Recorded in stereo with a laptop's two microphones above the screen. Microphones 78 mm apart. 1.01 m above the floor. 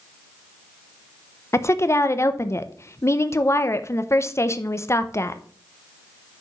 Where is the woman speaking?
35° left (ahead or behind), 0.5 m.